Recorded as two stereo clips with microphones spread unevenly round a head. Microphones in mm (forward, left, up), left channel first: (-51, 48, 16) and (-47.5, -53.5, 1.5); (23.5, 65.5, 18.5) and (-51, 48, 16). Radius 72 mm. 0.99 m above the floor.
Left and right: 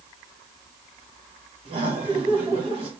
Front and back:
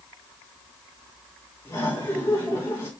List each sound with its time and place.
1.6 s laughter: 50° right, 1.8 m